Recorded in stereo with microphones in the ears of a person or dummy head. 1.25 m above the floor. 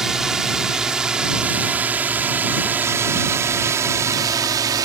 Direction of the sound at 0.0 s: Centre (ahead or behind).